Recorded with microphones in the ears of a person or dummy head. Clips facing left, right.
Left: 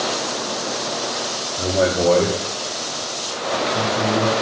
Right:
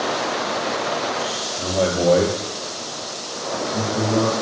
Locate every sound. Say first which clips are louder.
1.6 s a man speaking: left 2 dB; 25° left (ahead or behind), 1.1 m; by 4.3 s 85° right, 3 m